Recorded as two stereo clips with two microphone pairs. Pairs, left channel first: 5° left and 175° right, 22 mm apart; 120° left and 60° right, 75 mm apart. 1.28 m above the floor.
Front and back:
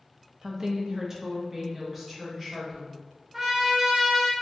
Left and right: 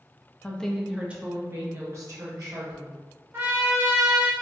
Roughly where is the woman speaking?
Behind.